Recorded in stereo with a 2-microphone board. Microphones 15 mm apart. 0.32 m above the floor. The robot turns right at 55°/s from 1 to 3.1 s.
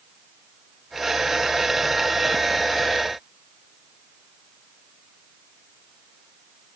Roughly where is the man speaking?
I don't hear a man speaking.